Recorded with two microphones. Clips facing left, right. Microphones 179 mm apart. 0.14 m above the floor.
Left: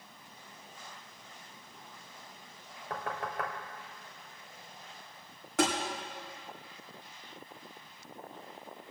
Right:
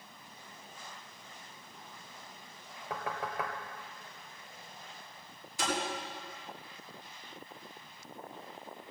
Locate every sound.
2.9 s knocking: centre (ahead or behind), 1.8 m
5.6 s tapping: 80° left, 6.5 m